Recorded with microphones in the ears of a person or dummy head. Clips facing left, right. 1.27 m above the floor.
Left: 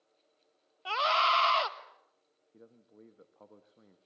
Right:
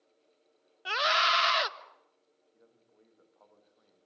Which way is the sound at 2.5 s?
40° left (ahead or behind).